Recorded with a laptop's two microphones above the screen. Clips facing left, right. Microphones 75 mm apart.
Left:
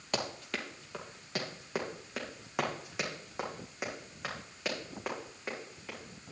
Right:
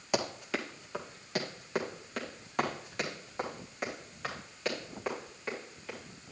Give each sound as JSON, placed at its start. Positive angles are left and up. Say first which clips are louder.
{"t": 0.1, "sound": "running footsteps", "louder": "right 4 dB", "side_deg": -10, "distance_m": 1.5}